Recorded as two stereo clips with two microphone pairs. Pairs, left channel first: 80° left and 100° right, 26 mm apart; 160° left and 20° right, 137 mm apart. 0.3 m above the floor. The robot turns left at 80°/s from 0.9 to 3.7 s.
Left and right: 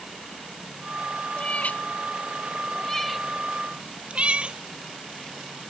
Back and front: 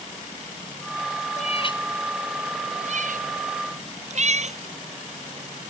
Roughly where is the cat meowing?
Behind left.